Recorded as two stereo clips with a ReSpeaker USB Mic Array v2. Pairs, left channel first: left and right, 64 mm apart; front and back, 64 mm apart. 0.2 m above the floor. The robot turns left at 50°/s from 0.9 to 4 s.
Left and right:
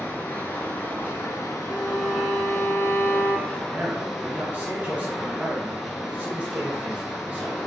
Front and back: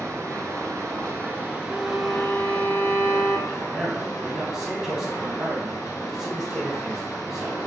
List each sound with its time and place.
0.0 s running water: 150° left, 1.2 m; by 7.7 s 5° right, 1.2 m
1.6 s a violin: 155° right, 1.8 m; by 3.4 s 120° left, 1.8 m
3.5 s a man speaking: 80° right, 1.4 m; by 7.7 s 105° right, 1.4 m